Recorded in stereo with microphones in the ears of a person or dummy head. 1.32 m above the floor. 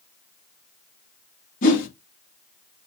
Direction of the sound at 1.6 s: 50° left (ahead or behind).